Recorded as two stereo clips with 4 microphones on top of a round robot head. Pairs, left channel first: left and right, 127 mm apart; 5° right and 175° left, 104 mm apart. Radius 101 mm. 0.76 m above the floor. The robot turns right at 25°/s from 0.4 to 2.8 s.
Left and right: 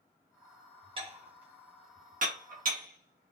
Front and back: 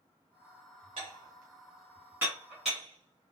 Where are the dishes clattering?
140° right, 0.8 m; by 3.3 s 95° right, 0.8 m.